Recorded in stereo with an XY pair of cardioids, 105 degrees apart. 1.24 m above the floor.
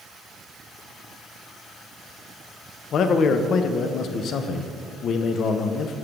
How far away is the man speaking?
About 0.6 m.